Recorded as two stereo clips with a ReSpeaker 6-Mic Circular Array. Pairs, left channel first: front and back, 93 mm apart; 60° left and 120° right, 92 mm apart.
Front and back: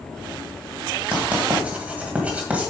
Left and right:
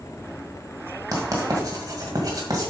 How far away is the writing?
About 1.9 m.